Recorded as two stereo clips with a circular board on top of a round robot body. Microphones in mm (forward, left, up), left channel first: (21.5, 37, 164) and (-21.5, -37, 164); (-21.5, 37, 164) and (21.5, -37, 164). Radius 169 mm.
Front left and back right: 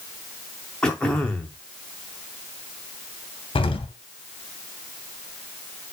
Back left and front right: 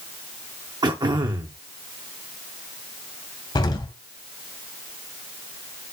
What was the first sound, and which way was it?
Throat clearing, 20° right.